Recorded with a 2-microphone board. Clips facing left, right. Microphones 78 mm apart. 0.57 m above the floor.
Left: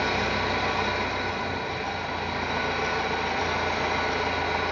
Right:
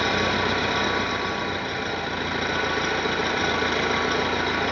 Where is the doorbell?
No doorbell in this recording.